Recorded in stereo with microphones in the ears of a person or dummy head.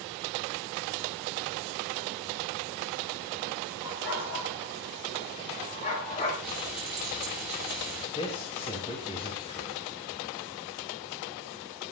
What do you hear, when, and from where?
3.8 s a dog barking: 65° left (ahead or behind), 6.5 m; by 6.3 s 30° left (ahead or behind), 6.5 m
6.4 s frying: 10° right (ahead or behind), 9 m
8.2 s a man speaking: 25° left (ahead or behind), 3 m